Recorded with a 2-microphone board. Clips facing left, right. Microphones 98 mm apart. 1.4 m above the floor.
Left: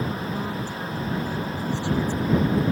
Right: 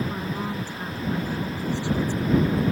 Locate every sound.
0.1 s a woman speaking: 15° right (ahead or behind)